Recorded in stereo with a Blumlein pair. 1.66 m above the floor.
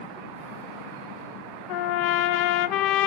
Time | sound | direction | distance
1.7 | a trumpet | 45° left | 0.5 m